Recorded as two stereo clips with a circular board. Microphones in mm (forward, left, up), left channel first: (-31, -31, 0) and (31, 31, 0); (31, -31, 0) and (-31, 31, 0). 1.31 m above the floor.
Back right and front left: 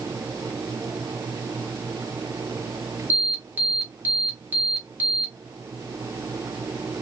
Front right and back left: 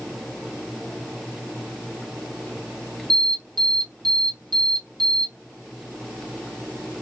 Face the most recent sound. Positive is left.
turn(degrees=110)